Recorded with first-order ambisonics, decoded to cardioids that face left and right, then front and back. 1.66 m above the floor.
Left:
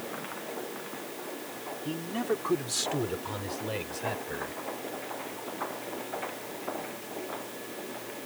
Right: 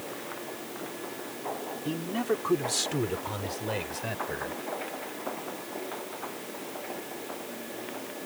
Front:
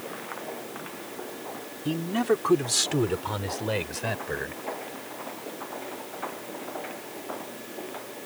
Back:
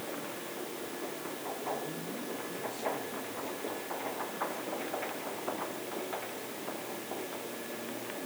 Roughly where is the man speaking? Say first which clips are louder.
Right 1 dB, front 13 dB; ahead.